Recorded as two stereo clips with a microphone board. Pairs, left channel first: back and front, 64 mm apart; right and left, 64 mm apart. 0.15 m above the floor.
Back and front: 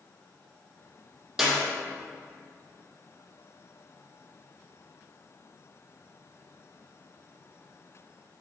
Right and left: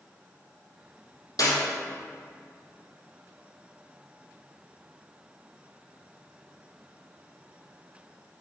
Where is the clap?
85° right, 5 m.